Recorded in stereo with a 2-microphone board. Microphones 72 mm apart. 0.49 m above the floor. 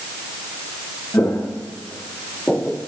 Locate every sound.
1.1 s footsteps: 40° left (ahead or behind), 4 m; by 2.8 s 20° left (ahead or behind), 4 m